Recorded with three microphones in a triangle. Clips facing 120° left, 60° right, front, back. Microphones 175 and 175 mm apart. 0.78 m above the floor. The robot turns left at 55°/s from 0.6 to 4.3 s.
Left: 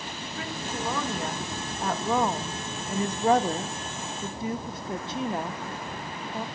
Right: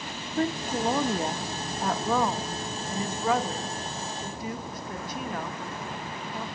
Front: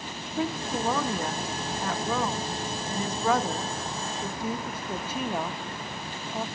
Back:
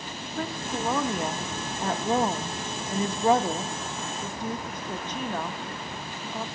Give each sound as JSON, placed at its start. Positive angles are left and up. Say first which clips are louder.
{"t": 0.4, "sound": "a woman speaking", "louder": "right 8 dB, front 3 dB", "azimuth_deg": -80, "distance_m": 0.8}